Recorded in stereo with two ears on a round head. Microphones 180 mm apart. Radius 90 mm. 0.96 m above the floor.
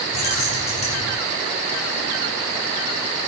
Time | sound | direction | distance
0.1 | keys jangling | 35° left (ahead or behind) | 3.5 m